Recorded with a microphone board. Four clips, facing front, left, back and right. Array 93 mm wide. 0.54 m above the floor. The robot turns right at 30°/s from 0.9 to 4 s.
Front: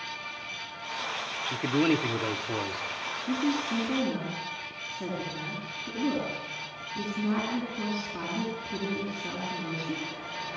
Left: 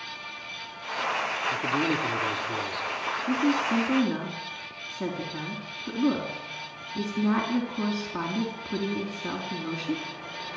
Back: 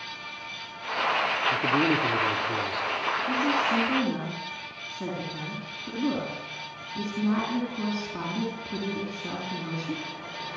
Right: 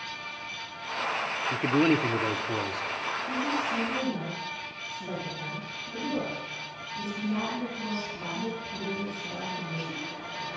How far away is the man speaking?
About 1.2 m.